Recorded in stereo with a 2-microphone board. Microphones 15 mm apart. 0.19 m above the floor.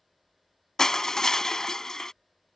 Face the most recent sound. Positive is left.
turn(degrees=40)  # may be behind; listen again after turning